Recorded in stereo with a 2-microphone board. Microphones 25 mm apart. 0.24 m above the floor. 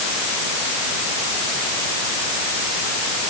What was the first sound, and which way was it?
Only background noise.